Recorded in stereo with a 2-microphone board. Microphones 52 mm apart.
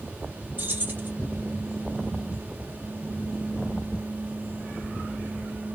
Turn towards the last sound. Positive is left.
turn(degrees=-40)  # may be behind; listen again after turning